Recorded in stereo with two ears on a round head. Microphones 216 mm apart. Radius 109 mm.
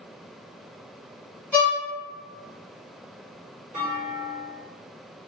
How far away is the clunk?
About 1.5 m.